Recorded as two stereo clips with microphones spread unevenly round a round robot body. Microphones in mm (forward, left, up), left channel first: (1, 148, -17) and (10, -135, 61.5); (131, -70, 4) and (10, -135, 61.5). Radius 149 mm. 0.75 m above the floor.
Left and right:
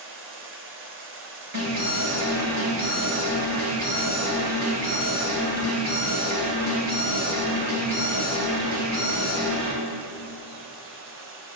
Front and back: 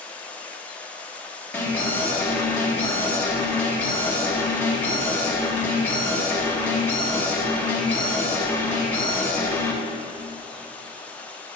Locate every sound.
0.0 s running water: 40° right, 1.6 m
1.5 s an alarm: 45° right, 3.5 m